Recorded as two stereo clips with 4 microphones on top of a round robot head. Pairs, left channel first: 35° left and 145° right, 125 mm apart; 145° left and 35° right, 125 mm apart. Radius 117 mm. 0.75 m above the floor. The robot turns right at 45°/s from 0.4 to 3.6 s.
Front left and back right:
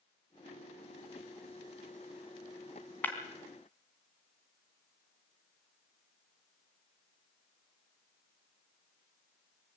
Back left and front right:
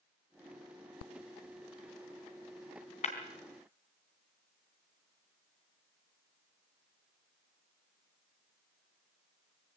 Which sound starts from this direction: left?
Breaking glass, at 3.0 s.